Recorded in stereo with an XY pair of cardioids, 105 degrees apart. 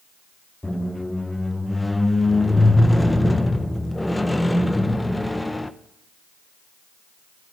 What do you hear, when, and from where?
0.6 s a squeak: 10° left, 0.6 m